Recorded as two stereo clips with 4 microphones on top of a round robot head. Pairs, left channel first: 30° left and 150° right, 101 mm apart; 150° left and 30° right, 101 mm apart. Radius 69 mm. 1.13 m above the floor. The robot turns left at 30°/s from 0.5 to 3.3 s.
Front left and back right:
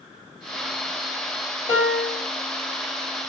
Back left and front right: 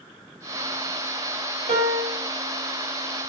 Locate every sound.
1.7 s a piano: 30° right, 3.5 m; by 2.2 s 45° right, 3.5 m